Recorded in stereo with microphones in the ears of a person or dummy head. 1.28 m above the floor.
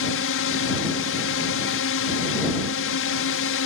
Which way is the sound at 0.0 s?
60° left (ahead or behind).